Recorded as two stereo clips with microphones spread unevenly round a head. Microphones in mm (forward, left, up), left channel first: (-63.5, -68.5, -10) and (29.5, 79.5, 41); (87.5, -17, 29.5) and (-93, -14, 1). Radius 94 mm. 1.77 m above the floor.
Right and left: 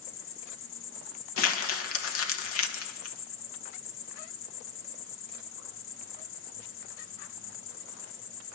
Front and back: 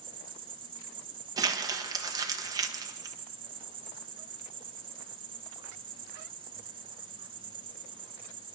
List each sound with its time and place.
0.0 s an insect: 115° right, 1.6 m
1.4 s crumpling: 105° right, 1.4 m